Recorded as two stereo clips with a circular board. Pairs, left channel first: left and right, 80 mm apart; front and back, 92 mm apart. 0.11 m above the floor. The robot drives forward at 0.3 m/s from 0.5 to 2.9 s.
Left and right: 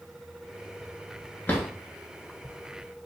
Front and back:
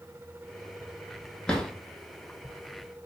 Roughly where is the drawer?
Ahead left.